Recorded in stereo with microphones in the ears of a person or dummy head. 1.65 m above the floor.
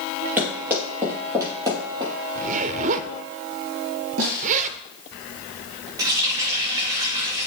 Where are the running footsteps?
5° right (ahead or behind), 2.5 m; by 2.1 s 20° right (ahead or behind), 3 m.